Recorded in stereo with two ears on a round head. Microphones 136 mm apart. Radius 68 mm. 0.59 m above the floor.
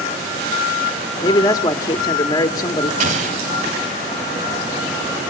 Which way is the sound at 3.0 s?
50° right (ahead or behind).